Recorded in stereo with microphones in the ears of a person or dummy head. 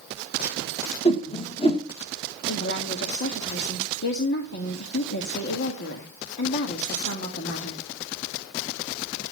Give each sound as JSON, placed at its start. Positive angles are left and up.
{"t": 1.1, "sound": "a whoosh", "side_deg": 25, "distance_m": 1.4}
{"t": 2.5, "sound": "a woman speaking", "side_deg": 55, "distance_m": 1.9}